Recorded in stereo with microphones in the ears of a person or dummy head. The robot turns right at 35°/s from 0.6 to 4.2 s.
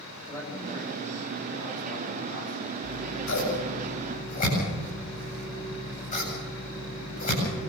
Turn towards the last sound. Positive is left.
turn(degrees=30)  # may be behind; listen again after turning